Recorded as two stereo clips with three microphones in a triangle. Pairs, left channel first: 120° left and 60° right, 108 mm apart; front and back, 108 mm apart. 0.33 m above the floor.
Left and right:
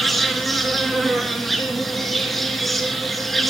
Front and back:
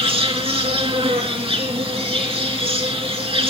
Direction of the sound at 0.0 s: 150° right.